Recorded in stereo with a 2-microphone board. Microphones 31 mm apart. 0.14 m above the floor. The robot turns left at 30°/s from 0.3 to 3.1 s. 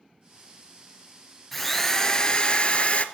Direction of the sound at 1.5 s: 175° left.